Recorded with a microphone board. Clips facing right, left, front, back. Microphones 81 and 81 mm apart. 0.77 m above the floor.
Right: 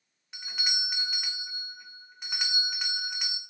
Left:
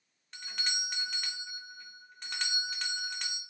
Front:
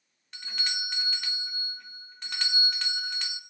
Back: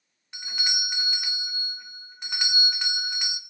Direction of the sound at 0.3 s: 140° right.